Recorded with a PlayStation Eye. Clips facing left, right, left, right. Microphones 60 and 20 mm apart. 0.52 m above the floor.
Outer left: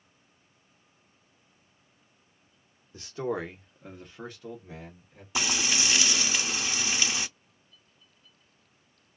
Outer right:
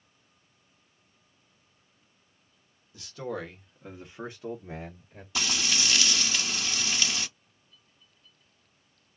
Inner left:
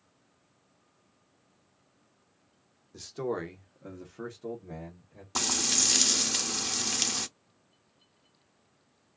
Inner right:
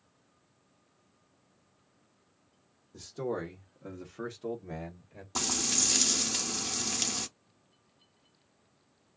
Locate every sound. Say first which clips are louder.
2.9 s a man speaking: outer left 4 dB, inner left 2 dB; 35° left (ahead or behind), 1.0 m; by 5.2 s 45° right (ahead or behind), 1.2 m
5.3 s frying: outer left 1 dB, inner left 3 dB; 20° left (ahead or behind), 0.6 m